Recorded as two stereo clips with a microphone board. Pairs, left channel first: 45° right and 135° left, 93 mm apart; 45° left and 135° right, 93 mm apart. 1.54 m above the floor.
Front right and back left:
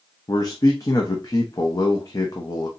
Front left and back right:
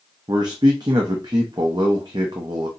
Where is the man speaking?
95° right, 0.8 m.